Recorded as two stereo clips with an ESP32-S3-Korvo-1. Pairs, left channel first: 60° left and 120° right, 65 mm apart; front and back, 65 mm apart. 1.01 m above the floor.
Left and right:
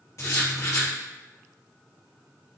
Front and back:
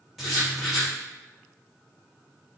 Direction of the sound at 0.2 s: 90° left.